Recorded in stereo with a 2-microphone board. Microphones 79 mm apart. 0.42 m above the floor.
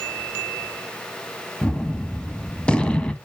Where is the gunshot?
15° left (ahead or behind), 0.6 m.